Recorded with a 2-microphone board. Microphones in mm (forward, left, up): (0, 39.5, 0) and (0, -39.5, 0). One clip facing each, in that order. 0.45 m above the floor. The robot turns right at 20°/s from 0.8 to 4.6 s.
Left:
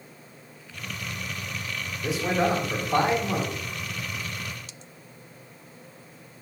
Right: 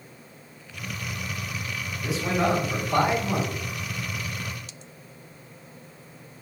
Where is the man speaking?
30° left (ahead or behind), 1.7 m; by 3.5 s 10° left (ahead or behind), 1.7 m.